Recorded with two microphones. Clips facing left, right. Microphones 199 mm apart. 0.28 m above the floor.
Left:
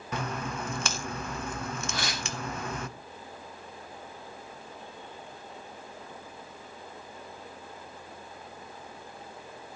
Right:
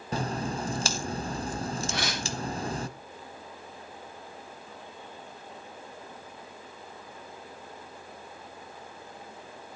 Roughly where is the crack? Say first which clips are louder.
Right 3 dB; right.